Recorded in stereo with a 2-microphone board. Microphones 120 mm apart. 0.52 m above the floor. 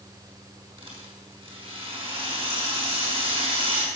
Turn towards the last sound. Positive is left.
turn(degrees=-45)  # may be behind; listen again after turning